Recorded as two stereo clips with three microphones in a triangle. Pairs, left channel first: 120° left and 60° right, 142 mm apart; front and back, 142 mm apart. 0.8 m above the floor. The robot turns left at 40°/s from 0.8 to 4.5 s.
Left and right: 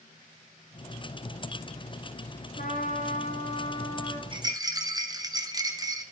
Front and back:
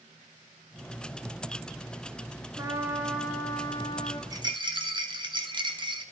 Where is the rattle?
115° right, 1.2 m; by 6.0 s 125° right, 1.2 m.